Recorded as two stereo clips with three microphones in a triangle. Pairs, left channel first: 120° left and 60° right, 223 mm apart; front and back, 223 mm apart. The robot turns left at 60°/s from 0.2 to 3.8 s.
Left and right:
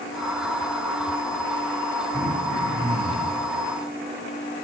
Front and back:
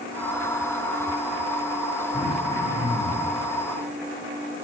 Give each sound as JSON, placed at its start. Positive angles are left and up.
{"t": 2.1, "sound": "throat clearing", "azimuth_deg": 165, "distance_m": 3.5}